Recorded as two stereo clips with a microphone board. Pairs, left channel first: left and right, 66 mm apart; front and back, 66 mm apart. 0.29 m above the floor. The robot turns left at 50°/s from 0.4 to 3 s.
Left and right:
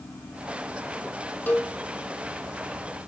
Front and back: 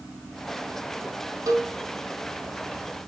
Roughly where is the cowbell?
Behind.